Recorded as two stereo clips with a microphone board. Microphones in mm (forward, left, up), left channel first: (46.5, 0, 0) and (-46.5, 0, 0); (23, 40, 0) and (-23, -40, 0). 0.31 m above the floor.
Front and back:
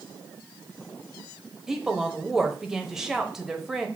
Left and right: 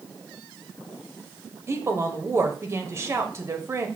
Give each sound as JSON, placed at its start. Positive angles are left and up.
{"t": 1.7, "sound": "a woman speaking", "azimuth_deg": -100, "distance_m": 0.9}